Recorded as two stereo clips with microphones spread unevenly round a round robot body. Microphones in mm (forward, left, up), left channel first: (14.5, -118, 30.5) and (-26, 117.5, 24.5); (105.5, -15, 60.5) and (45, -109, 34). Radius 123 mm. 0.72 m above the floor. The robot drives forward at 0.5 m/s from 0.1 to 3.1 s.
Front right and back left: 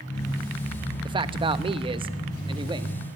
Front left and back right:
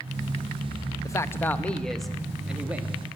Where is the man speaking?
105° left, 0.7 m; by 3.0 s 170° left, 1.2 m.